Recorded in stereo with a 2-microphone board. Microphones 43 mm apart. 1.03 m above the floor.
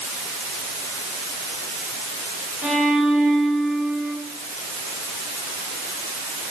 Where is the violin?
35° right (ahead or behind), 6.5 m.